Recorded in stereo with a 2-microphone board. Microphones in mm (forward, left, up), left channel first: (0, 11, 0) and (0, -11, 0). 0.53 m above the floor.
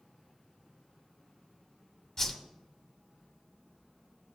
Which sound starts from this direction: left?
A whoosh, at 2.2 s.